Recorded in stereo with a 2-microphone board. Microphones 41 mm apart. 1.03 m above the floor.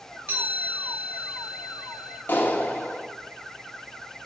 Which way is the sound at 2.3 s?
60° left (ahead or behind).